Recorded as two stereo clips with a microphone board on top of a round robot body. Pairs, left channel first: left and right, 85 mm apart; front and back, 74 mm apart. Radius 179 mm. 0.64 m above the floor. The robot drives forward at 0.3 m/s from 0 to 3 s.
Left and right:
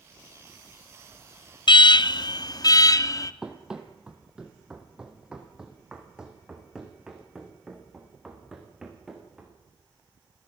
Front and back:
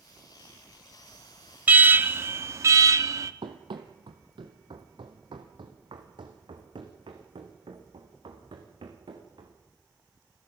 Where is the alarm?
110° left, 0.7 m; by 3.3 s 135° left, 0.9 m.